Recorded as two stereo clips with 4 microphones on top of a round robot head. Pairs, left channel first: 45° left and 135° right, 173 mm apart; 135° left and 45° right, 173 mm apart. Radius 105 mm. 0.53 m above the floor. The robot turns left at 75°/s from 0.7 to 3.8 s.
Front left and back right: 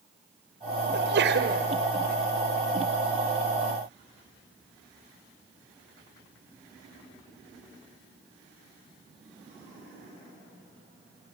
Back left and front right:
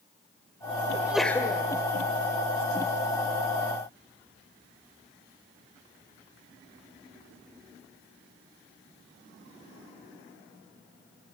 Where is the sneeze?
115° right, 1.8 m; by 1.6 s 170° right, 1.8 m.